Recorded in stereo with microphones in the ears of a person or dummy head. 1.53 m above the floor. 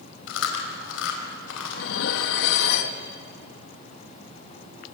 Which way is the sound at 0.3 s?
80° left.